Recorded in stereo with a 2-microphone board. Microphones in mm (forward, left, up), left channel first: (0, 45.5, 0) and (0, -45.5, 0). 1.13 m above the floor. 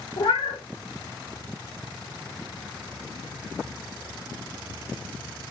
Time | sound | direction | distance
0.2 | a cat meowing | 65° left (ahead or behind) | 0.7 m